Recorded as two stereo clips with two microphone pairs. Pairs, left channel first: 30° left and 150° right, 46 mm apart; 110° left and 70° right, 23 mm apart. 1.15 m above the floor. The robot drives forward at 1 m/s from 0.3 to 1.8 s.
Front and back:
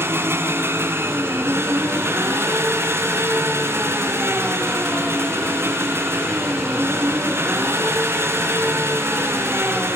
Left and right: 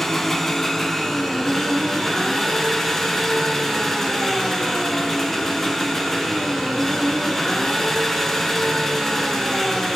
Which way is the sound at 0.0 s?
175° right.